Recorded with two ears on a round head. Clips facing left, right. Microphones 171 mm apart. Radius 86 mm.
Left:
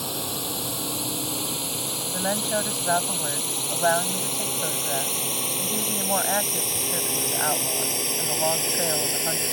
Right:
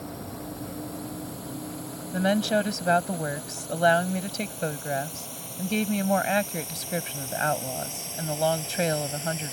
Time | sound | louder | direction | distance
0.0 | a drone | left 4 dB | 75° left (ahead or behind) | ?
2.1 | a woman speaking | right 4 dB | 30° right (ahead or behind) | ?